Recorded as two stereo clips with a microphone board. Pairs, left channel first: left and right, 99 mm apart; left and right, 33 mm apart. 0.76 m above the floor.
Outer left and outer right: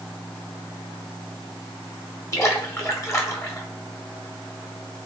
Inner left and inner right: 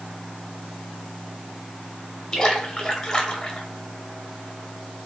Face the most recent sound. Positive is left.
turn(degrees=30)  # may be behind; listen again after turning